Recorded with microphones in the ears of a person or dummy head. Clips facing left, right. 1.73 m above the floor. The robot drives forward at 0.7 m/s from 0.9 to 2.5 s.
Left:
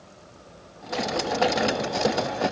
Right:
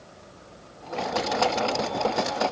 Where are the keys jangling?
No keys jangling in this recording.